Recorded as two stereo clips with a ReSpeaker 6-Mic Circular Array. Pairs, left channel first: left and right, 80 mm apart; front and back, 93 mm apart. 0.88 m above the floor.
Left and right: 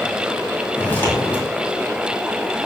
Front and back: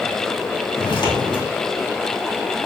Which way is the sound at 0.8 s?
25° left.